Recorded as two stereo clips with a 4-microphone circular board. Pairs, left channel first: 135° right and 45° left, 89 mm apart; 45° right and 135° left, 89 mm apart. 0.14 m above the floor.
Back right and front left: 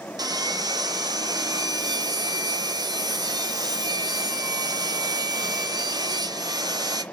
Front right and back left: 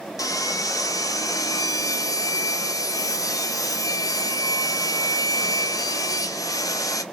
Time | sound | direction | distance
0.2 | sawing | 5° left | 0.5 m